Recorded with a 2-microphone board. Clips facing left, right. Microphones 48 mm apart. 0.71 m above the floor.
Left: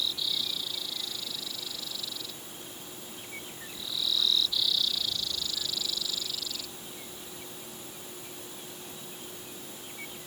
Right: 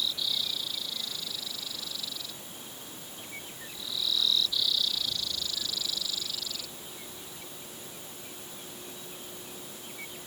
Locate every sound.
Only background noise.